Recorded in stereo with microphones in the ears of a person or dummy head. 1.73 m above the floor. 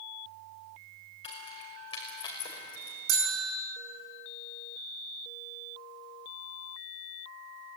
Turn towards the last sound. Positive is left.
turn(degrees=-65)  # may be behind; listen again after turning